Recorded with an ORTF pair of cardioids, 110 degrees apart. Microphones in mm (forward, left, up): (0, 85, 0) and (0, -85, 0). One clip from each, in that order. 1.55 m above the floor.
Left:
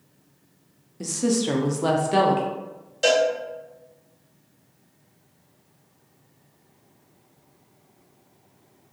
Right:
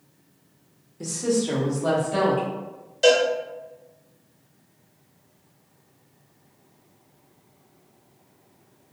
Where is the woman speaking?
15° left, 0.6 m; by 2.4 s 80° left, 1.1 m.